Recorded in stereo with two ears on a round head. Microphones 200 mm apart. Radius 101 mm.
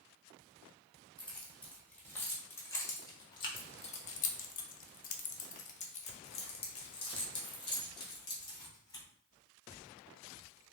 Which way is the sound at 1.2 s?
5° left (ahead or behind).